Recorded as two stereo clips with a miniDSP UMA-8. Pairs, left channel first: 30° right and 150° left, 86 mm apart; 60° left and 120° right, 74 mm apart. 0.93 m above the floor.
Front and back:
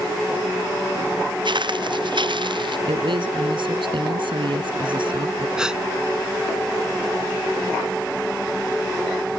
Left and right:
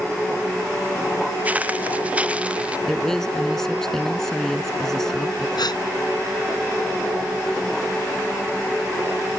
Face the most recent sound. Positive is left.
turn(degrees=70)